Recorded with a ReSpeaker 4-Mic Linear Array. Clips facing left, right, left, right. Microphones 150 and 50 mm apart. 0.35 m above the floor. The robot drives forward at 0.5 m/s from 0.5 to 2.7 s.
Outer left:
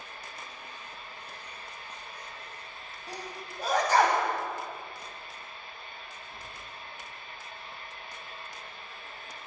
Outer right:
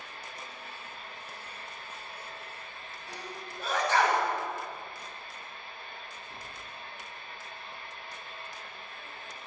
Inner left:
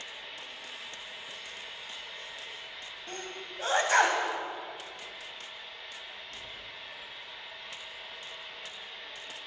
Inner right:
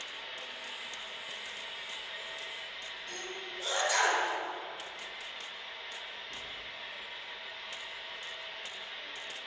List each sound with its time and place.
0.0 s an engine running: 70° right (ahead or behind), 4 m; by 9.5 s 60° right (ahead or behind), 4.5 m
3.1 s a sneeze: 40° left (ahead or behind), 2.5 m